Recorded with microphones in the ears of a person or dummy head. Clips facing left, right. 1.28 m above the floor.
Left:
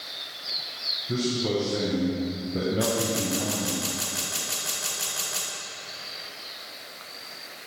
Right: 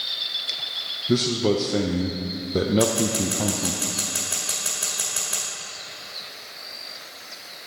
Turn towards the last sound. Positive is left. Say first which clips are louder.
# right 4 dB
turn(degrees=-40)  # may be behind; listen again after turning